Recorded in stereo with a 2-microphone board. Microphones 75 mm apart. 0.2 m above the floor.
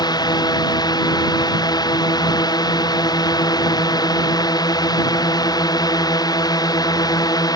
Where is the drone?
60° left (ahead or behind); by 7.6 s 55° left (ahead or behind).